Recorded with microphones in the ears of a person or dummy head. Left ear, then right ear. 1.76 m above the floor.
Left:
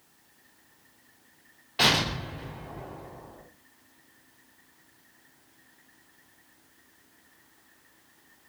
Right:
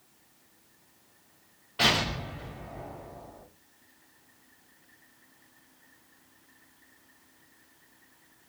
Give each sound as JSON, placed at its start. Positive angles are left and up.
{"t": 1.8, "sound": "an explosion", "side_deg": 30, "distance_m": 3.0}